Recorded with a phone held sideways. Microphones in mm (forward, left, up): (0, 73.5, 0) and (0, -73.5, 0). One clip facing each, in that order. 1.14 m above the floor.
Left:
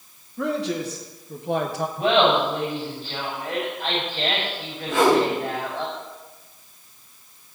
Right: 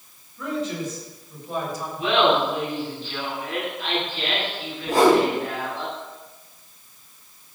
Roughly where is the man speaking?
Left.